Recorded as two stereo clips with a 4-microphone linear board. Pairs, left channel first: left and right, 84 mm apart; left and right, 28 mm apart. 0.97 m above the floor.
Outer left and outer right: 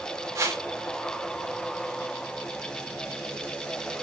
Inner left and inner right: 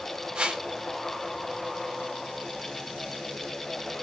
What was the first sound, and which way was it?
A whoosh, 40° right (ahead or behind).